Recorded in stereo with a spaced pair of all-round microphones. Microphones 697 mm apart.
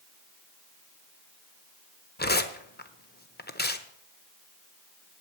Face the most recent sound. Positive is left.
turn(degrees=15)  # may be behind; listen again after turning